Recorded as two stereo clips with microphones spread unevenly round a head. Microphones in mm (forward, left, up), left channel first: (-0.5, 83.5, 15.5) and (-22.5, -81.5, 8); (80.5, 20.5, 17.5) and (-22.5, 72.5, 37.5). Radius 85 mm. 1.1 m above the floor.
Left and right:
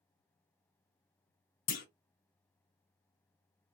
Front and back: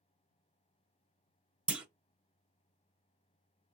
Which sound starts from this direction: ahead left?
A clunk, at 1.7 s.